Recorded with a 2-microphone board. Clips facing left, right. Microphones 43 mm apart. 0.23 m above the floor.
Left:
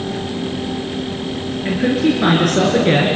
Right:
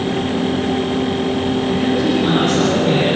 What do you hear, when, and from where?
1.6 s a man speaking: 70° left (ahead or behind), 5 m; by 3.1 s 60° left (ahead or behind), 4 m